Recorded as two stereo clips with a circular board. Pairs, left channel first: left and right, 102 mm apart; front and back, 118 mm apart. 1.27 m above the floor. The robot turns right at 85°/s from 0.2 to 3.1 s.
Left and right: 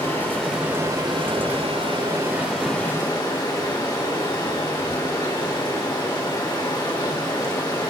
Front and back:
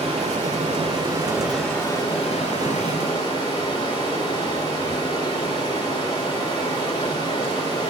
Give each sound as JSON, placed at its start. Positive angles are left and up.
{"t": 0.0, "sound": "running water", "azimuth_deg": 150, "distance_m": 2.5}